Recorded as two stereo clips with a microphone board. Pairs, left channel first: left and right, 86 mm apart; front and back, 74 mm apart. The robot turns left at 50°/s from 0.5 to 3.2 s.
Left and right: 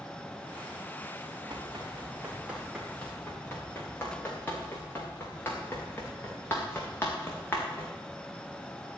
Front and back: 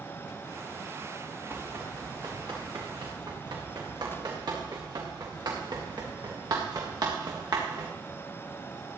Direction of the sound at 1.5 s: 115° right.